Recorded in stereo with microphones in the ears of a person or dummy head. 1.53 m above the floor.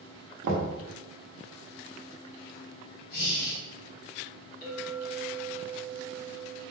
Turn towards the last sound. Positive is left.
turn(degrees=50)  # may be behind; listen again after turning